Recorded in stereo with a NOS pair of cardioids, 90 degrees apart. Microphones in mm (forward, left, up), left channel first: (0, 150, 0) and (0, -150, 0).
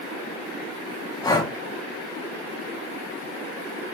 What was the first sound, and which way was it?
Breathing, 15° left.